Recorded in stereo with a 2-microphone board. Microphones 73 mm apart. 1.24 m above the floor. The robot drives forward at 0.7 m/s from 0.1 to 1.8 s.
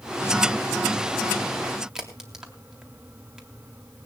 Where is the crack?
5° right (ahead or behind), 3 m.